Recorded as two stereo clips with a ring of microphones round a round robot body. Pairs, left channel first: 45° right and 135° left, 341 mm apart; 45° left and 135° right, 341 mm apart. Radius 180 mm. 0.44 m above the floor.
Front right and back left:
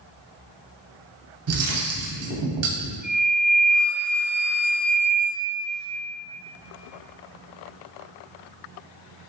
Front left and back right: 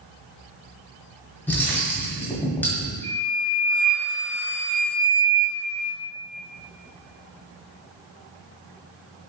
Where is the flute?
90° right, 0.9 m.